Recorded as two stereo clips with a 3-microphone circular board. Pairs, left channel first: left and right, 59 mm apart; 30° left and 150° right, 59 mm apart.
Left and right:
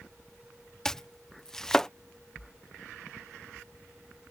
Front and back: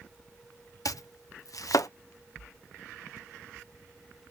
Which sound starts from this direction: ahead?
Chopping, at 0.8 s.